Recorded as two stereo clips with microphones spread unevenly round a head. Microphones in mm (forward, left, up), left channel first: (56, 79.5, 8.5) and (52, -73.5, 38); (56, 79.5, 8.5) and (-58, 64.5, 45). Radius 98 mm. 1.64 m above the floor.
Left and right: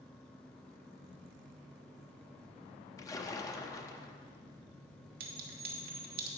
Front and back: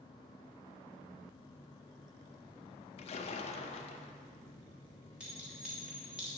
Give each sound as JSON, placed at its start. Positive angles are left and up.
{"t": 3.0, "sound": "a splash", "azimuth_deg": 20, "distance_m": 0.6}
{"t": 5.2, "sound": "a clink", "azimuth_deg": -95, "distance_m": 1.1}